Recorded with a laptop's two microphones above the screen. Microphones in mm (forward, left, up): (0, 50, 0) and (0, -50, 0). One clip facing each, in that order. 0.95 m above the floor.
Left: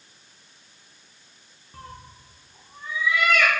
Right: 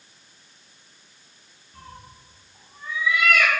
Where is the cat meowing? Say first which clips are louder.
Left 2 dB; 55° left (ahead or behind), 0.5 m; by 3.5 s 5° right (ahead or behind), 0.8 m.